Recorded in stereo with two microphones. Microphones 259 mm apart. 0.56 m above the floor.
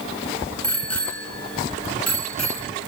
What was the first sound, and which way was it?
A bicycle bell, 65° left (ahead or behind).